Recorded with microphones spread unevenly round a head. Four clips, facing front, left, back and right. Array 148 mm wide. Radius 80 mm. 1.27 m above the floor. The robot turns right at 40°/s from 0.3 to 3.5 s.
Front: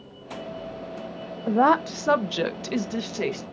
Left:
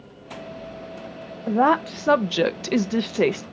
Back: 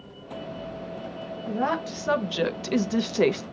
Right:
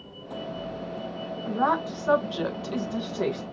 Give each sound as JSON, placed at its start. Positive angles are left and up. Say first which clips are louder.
{"t": 1.5, "sound": "a woman speaking", "louder": "left 6 dB, front 8 dB", "azimuth_deg": 45, "distance_m": 0.6}